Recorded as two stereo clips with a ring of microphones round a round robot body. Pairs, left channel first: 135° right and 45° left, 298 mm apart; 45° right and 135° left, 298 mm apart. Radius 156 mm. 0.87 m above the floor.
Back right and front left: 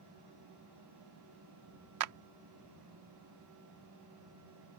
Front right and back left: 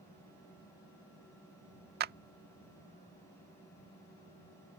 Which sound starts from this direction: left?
A clap, at 2.0 s.